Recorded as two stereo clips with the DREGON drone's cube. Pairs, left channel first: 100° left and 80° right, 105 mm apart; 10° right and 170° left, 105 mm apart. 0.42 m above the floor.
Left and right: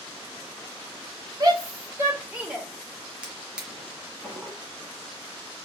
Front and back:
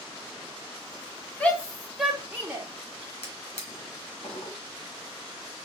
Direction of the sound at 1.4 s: 80° right.